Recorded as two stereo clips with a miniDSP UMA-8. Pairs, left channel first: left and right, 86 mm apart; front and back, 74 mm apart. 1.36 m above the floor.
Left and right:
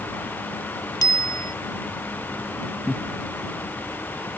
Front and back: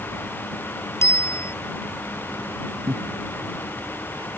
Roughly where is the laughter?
Behind.